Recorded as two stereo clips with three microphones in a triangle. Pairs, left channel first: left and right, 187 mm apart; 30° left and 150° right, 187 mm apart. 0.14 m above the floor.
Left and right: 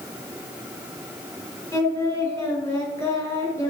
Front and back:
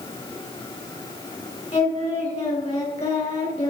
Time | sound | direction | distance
1.7 | singing | 30° left | 1.8 m